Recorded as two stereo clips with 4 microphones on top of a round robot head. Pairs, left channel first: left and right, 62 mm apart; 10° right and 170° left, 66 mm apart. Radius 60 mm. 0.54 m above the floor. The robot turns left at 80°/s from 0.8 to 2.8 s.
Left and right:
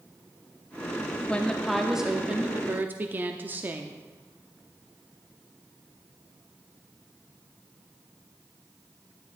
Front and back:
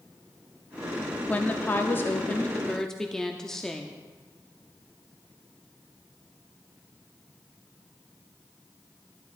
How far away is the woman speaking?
About 0.7 m.